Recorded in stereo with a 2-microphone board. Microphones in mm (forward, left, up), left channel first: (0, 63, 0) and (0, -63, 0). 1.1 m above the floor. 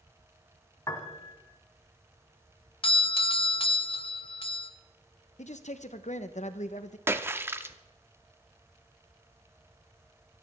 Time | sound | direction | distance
0.9 | a piano | 25° left (ahead or behind) | 1.4 m
2.8 | a doorbell | 45° left (ahead or behind) | 0.8 m
5.4 | a man speaking | 70° left (ahead or behind) | 0.8 m
7.1 | a splash | 20° right (ahead or behind) | 0.6 m